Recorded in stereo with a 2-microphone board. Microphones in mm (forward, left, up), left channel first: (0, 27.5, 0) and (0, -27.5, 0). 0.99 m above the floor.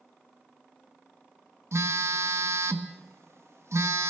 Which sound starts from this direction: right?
A phone buzzing, at 1.7 s.